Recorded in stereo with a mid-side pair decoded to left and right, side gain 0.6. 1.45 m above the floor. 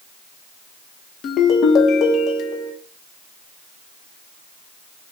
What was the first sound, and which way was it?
A ringtone, 50° left.